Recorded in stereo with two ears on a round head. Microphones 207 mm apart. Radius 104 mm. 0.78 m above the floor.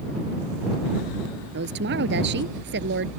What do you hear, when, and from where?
1.5 s a woman speaking: 50° right (ahead or behind)